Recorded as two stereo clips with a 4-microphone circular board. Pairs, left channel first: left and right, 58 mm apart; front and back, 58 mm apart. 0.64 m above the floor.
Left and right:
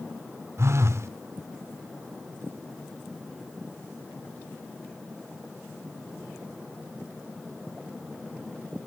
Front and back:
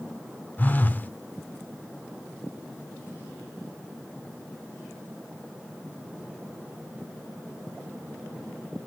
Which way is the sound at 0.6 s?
55° right.